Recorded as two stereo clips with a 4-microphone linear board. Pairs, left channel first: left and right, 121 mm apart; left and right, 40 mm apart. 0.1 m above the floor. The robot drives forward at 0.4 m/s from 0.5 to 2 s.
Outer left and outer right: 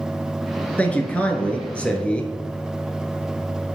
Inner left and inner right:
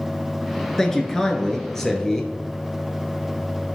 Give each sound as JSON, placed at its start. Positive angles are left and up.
{"t": 0.8, "sound": "a man speaking", "side_deg": 15, "distance_m": 1.2}